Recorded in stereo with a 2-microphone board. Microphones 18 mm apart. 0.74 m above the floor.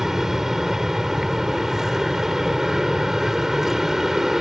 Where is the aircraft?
25° right (ahead or behind).